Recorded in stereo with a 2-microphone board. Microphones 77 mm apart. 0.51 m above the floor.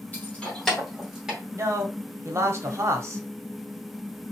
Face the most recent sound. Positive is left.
turn(degrees=-35)  # may be behind; listen again after turning